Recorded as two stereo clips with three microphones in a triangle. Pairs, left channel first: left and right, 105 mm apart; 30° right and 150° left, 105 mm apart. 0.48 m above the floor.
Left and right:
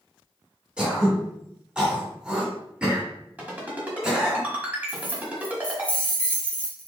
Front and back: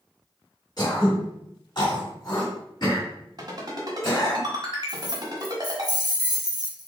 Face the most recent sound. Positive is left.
turn(degrees=160)